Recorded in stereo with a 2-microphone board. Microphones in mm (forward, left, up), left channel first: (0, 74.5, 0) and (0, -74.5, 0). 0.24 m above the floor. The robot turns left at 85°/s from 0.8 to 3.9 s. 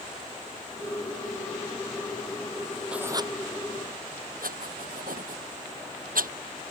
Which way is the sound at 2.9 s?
5° right (ahead or behind).